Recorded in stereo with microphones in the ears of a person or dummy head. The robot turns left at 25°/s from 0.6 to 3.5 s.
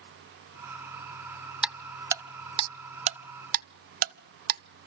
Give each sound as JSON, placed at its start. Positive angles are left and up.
{"t": 1.6, "sound": "ticking", "side_deg": -5, "distance_m": 0.5}